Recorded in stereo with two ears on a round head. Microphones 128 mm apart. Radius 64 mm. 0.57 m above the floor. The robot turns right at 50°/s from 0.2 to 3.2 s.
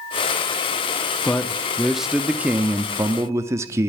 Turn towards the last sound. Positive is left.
turn(degrees=-20)  # may be behind; listen again after turning